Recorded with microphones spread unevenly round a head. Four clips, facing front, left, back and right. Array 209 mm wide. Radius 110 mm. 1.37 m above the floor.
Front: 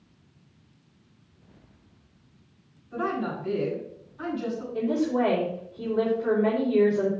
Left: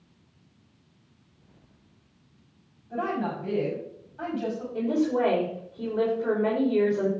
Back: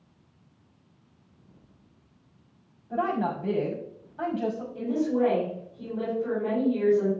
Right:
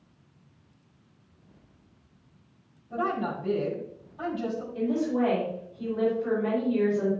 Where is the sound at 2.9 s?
175° left, 5 m.